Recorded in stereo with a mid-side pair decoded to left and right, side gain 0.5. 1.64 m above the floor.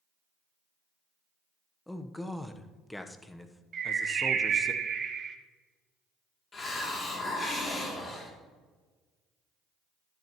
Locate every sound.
1.9 s a man speaking: 10° left, 1.0 m
3.7 s a bird: 50° right, 1.2 m
6.5 s a hiss: 40° left, 2.5 m